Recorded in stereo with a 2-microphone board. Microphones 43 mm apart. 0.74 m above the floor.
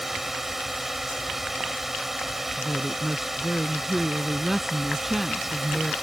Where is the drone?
5° right (ahead or behind).